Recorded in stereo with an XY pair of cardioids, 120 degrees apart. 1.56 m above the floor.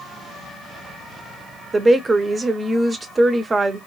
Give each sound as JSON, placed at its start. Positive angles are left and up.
{"t": 1.7, "sound": "a woman speaking", "azimuth_deg": -25, "distance_m": 0.6}